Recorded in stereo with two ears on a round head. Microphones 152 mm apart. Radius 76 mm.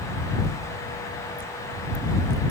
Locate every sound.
Only background noise.